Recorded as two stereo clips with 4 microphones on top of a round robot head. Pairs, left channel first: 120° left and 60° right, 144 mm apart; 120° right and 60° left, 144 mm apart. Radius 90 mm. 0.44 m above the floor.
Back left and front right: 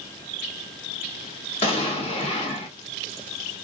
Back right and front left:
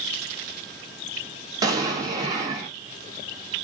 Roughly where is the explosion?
Left.